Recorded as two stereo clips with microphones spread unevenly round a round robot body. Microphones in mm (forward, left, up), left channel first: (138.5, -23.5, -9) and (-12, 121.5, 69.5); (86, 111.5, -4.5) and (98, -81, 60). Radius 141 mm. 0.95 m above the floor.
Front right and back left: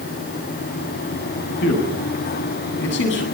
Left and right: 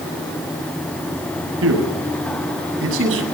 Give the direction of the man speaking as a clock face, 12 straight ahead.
3 o'clock.